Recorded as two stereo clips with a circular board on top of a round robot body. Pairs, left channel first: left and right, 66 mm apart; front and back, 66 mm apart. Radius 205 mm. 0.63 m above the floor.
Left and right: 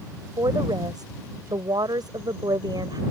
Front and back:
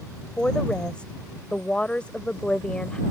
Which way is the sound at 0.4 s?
75° right.